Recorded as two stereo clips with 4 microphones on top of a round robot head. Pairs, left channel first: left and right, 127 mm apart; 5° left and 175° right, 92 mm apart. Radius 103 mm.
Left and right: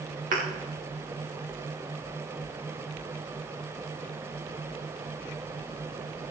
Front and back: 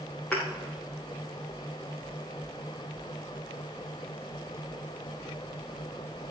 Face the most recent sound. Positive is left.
turn(degrees=-80)